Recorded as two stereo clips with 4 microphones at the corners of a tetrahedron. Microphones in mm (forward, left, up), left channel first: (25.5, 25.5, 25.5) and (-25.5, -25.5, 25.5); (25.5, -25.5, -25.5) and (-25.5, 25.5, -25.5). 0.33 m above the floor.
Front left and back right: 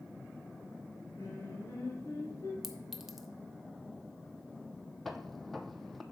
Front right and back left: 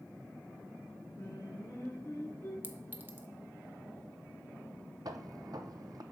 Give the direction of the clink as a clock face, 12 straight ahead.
7 o'clock.